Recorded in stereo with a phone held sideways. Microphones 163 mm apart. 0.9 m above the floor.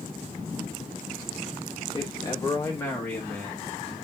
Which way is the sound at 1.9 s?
35° left (ahead or behind).